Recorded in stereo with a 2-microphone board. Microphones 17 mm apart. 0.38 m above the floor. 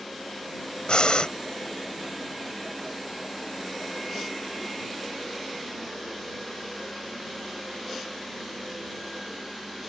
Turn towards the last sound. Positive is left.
turn(degrees=65)  # may be behind; listen again after turning